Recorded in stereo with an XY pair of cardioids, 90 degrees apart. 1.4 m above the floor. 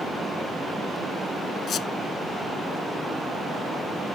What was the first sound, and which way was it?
A squeak, 70° left.